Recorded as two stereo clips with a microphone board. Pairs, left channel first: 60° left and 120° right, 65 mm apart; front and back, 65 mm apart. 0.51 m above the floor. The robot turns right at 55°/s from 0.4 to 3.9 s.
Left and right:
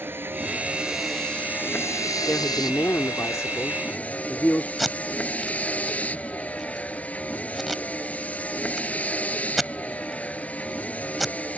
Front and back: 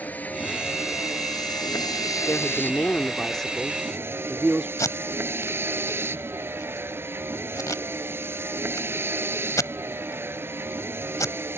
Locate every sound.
0.0 s a vehicle: 65° right; by 11.6 s 125° left
2.3 s a woman speaking: 20° left; by 4.7 s 105° left
4.8 s tape being pulled: 30° right